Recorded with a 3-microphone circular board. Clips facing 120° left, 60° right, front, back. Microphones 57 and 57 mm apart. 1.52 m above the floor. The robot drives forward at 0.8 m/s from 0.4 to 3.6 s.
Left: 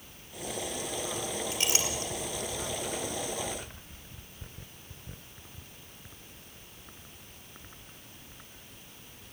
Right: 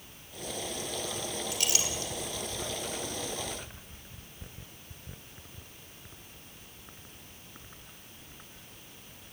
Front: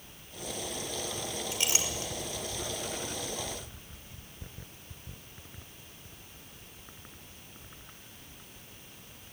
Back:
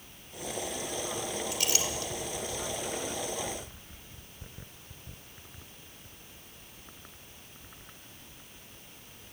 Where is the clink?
60° left, 5 m; by 2.1 s 65° left, 5 m.